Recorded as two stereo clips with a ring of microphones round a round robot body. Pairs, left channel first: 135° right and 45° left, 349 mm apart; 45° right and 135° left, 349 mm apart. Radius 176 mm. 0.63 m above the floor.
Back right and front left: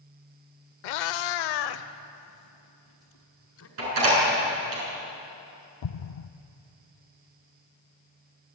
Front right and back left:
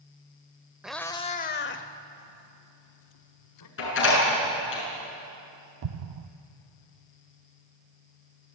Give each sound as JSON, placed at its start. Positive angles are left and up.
{"t": 0.8, "sound": "a cat meowing", "azimuth_deg": -140, "distance_m": 0.7}
{"t": 3.8, "sound": "a door slam", "azimuth_deg": 10, "distance_m": 7.0}
{"t": 5.8, "sound": "an explosion", "azimuth_deg": 180, "distance_m": 0.5}